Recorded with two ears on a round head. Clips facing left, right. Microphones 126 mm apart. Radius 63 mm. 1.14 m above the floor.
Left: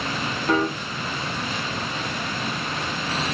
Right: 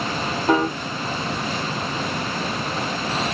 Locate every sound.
0.5 s a piano: 20° right (ahead or behind), 1.4 m